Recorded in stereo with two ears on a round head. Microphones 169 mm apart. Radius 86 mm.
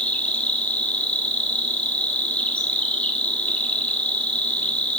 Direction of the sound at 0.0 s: 5° left (ahead or behind).